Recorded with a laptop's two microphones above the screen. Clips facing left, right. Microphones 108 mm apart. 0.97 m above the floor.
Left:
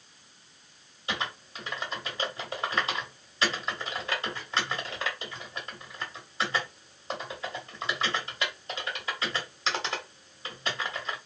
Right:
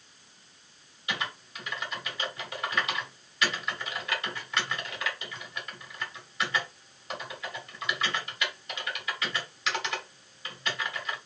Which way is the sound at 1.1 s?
30° left (ahead or behind).